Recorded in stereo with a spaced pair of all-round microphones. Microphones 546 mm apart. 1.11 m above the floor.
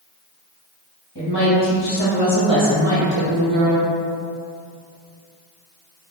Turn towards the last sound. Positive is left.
turn(degrees=-60)  # may be behind; listen again after turning